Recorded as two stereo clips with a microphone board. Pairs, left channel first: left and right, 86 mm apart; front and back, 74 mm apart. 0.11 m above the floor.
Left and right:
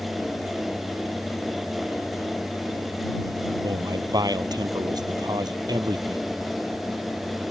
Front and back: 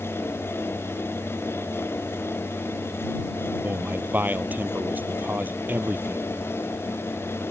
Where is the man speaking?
120° right.